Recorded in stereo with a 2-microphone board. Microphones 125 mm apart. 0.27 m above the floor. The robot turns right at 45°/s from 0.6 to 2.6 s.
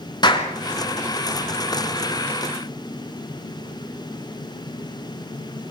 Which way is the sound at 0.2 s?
35° left (ahead or behind).